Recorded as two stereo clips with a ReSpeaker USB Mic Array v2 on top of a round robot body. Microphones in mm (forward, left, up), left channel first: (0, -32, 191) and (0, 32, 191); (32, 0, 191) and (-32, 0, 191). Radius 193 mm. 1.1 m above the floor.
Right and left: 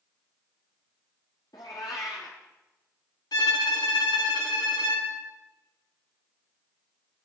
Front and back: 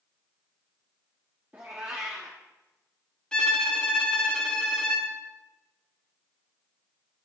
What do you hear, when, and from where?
1.5 s a cat meowing: 115° right, 0.6 m
3.3 s a violin: 75° right, 1.5 m